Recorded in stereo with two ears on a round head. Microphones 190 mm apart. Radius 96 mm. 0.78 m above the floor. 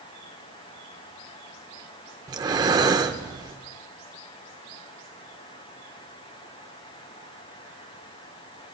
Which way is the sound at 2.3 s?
20° right (ahead or behind).